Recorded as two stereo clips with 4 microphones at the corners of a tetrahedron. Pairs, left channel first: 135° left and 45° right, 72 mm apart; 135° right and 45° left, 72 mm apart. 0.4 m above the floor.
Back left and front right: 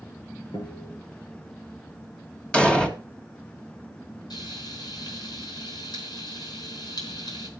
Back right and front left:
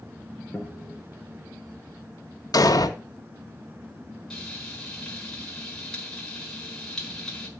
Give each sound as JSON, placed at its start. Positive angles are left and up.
{"t": 0.5, "sound": "a guitar", "azimuth_deg": 150, "distance_m": 3.5}
{"t": 2.5, "sound": "an explosion", "azimuth_deg": -150, "distance_m": 1.8}
{"t": 4.3, "sound": "frying", "azimuth_deg": 145, "distance_m": 4.0}